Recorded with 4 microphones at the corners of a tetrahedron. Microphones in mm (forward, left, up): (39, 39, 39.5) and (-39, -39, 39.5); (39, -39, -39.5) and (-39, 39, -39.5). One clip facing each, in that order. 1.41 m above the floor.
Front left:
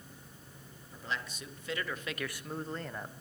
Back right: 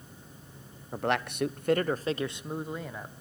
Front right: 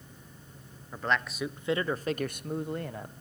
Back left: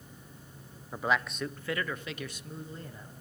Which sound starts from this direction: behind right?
A man speaking, at 0.9 s.